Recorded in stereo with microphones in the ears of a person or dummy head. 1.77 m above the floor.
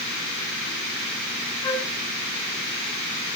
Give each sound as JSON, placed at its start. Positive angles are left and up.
{"t": 1.6, "sound": "a flute", "side_deg": 20, "distance_m": 4.0}